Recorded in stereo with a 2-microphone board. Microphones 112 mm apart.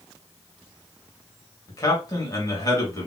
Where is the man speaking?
35° left (ahead or behind), 1.7 m.